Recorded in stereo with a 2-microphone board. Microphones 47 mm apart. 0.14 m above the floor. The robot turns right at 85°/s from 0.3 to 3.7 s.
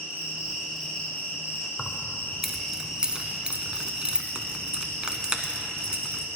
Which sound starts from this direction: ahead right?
An insect, at 0.0 s.